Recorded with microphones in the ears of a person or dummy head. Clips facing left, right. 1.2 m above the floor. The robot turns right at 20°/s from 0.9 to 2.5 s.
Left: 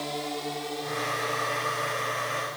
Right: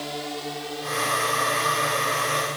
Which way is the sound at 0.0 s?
5° right (ahead or behind).